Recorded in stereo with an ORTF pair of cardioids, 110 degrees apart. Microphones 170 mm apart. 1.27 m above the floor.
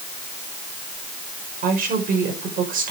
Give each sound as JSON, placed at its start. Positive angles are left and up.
{"t": 1.6, "sound": "a woman speaking", "azimuth_deg": -55, "distance_m": 5.5}